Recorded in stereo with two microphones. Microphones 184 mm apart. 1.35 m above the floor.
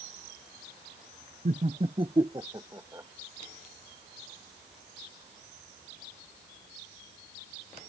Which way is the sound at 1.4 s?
50° right (ahead or behind).